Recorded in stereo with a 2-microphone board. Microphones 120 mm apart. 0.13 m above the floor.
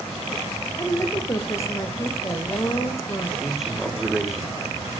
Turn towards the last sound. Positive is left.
turn(degrees=-5)  # may be behind; listen again after turning